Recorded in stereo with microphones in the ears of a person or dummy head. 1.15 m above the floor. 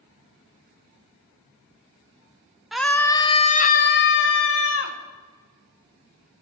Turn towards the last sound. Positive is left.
turn(degrees=70)  # may be behind; listen again after turning